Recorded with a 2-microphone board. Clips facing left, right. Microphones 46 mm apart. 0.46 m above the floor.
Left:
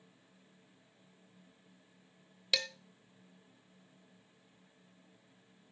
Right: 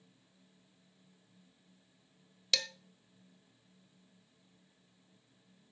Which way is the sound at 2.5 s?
10° left (ahead or behind).